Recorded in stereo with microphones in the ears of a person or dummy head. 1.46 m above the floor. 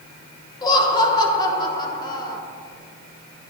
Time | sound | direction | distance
0.6 | laughter | 20° left (ahead or behind) | 1.7 m